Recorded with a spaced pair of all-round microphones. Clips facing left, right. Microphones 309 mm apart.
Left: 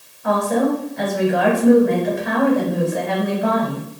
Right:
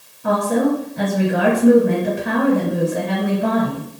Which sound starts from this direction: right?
A woman speaking, at 0.2 s.